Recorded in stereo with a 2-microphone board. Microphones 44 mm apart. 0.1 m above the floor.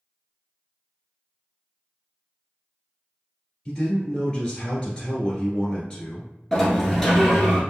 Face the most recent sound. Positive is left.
turn(degrees=10)  # may be behind; listen again after turning